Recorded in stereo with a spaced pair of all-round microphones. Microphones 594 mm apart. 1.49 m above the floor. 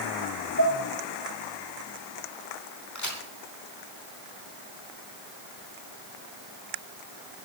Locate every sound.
0.6 s dishes clattering: 25° left (ahead or behind), 4.5 m
3.0 s a crack: 30° left (ahead or behind), 5 m